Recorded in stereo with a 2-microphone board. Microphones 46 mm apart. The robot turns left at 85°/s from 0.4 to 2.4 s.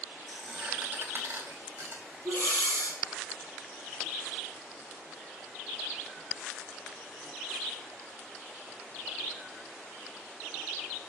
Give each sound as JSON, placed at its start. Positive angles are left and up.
{"t": 0.3, "sound": "a squeak", "side_deg": 10, "distance_m": 6.0}
{"t": 2.2, "sound": "breathing", "side_deg": -55, "distance_m": 2.5}